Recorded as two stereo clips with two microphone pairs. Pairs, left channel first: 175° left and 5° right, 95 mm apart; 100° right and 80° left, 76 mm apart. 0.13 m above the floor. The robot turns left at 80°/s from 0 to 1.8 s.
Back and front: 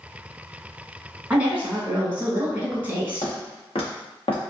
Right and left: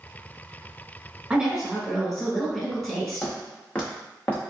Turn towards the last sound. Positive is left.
turn(degrees=-170)